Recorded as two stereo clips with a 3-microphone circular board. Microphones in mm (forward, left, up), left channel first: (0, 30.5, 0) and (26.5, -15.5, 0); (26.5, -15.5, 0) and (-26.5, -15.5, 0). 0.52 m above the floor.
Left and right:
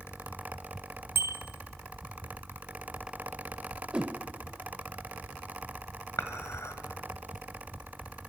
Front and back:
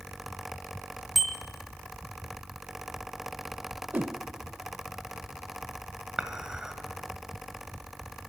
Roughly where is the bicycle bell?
Right.